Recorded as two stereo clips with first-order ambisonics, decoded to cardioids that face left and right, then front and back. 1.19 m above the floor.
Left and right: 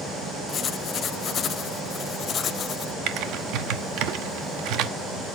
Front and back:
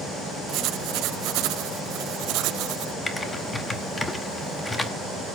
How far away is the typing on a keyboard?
About 0.8 m.